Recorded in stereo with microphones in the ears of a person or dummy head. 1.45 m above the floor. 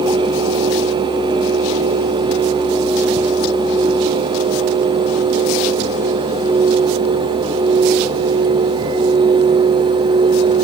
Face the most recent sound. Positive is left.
No sound to turn to.